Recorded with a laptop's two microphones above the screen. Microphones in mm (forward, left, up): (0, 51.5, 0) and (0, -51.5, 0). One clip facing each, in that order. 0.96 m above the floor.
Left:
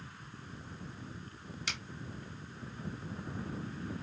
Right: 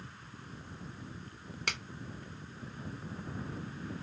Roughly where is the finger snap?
Right.